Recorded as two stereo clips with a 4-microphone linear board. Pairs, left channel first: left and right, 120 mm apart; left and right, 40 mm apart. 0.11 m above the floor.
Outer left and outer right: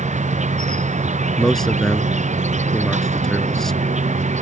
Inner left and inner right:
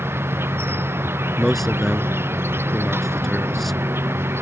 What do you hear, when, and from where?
0.0 s an insect: 85° right
1.4 s a man speaking: 5° left (ahead or behind)